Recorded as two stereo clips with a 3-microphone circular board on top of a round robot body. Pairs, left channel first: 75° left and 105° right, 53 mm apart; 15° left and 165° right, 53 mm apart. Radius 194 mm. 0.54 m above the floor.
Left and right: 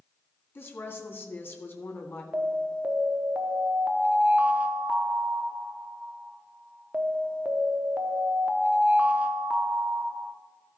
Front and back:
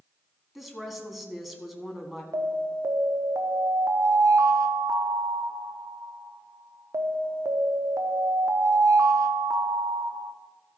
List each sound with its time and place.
0.6 s a woman speaking: 110° left, 1.8 m
2.3 s an alarm: 170° right, 0.8 m